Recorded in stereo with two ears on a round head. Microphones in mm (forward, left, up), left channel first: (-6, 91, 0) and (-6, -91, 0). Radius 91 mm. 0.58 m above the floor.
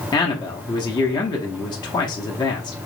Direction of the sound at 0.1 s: 20° left (ahead or behind).